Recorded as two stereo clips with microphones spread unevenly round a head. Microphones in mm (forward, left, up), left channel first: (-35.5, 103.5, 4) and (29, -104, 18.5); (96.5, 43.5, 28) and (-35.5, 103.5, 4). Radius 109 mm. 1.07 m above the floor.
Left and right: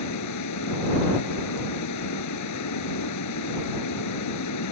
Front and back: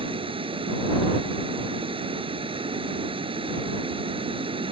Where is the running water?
100° left.